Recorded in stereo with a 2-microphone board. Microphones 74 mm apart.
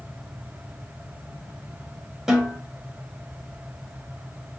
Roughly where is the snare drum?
Centre.